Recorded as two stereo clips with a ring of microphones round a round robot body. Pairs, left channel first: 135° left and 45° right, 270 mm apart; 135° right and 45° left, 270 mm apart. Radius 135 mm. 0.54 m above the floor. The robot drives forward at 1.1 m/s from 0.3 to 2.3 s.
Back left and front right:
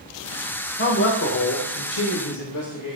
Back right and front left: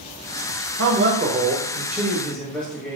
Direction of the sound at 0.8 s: 85° left.